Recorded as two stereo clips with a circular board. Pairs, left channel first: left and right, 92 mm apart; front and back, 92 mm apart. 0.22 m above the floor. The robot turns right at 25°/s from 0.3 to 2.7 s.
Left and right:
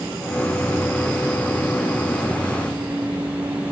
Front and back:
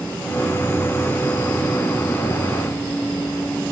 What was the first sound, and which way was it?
Only background noise.